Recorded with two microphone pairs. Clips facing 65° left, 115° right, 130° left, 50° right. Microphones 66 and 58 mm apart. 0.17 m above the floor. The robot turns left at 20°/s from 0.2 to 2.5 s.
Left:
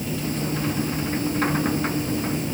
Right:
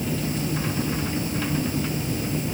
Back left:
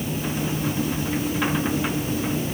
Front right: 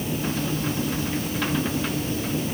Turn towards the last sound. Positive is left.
No sound to turn to.